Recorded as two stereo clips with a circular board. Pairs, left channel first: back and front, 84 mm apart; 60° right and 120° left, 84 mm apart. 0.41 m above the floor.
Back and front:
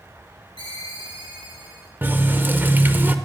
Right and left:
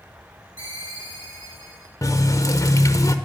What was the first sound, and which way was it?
A ringtone, 150° left.